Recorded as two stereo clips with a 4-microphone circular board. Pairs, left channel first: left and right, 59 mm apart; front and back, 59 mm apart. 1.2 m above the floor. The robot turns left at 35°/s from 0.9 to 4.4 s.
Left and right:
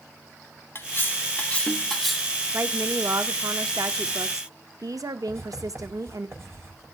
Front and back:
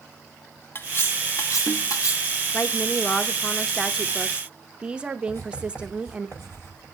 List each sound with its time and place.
0.8 s cutlery clinking: 45° left, 0.8 m; by 2.4 s 10° right, 0.8 m
2.5 s a woman speaking: 45° right, 0.9 m; by 6.3 s 110° right, 0.9 m
5.3 s writing: 50° right, 6.5 m